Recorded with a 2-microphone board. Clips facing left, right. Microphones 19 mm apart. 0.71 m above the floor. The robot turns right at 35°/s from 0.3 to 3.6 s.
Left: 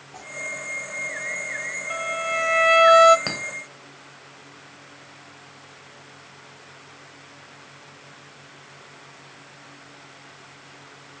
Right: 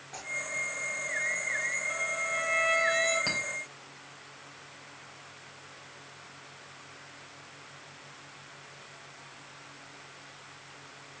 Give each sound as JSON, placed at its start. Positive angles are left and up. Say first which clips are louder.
{"t": 0.1, "sound": "tearing paper", "louder": "left 1 dB", "side_deg": -65, "distance_m": 5.0}
{"t": 1.9, "sound": "a violin", "louder": "left 5 dB", "azimuth_deg": 20, "distance_m": 1.0}
{"t": 3.3, "sound": "a clink", "louder": "left 2 dB", "side_deg": 25, "distance_m": 2.5}